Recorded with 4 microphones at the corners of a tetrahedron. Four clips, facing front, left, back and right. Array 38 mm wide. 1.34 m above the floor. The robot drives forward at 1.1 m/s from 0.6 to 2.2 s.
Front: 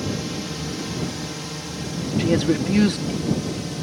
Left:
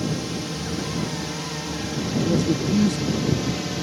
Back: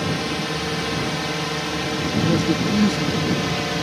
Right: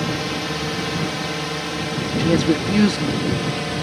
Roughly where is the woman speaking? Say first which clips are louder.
Right 4 dB, front 1 dB; ahead right.